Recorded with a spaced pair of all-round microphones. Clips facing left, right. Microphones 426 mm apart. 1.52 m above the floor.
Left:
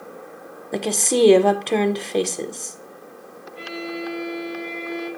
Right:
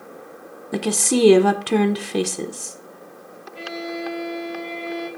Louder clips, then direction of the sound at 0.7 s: Right 1 dB; 25° right (ahead or behind).